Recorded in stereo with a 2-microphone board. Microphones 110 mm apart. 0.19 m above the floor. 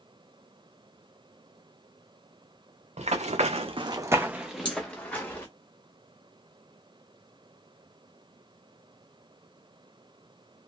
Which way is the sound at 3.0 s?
75° right (ahead or behind).